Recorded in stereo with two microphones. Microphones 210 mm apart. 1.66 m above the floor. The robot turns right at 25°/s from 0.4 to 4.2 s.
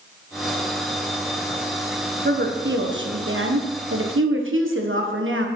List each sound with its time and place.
2.2 s a woman speaking: 130° right, 1.5 m; by 5.5 s 80° right, 1.5 m